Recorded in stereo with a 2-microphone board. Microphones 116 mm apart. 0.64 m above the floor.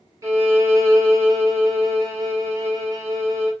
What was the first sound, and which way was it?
A violin, 25° right (ahead or behind).